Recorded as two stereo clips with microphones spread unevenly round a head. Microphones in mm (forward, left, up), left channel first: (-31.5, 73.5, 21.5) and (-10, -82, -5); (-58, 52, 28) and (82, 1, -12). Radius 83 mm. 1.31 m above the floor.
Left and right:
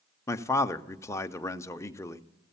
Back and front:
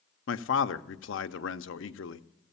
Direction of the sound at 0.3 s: 175° left.